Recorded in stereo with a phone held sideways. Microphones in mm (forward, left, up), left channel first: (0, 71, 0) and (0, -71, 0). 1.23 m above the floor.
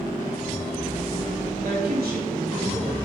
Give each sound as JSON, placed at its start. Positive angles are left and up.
{"t": 1.6, "sound": "a woman speaking", "side_deg": -80, "distance_m": 3.0}